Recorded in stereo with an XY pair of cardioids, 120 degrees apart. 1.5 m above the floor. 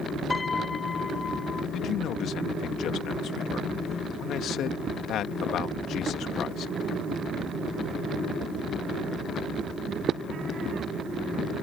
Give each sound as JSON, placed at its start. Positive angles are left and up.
{"t": 0.3, "sound": "a piano", "azimuth_deg": 25}
{"t": 1.7, "sound": "a man speaking", "azimuth_deg": 65}